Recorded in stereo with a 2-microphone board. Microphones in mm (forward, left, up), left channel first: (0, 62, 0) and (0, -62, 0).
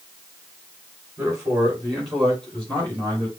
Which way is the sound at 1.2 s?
10° right (ahead or behind).